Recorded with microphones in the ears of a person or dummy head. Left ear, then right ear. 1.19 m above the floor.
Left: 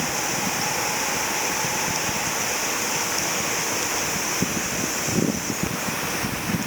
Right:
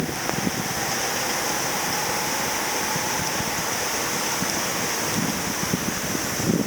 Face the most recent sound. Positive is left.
No sound to turn to.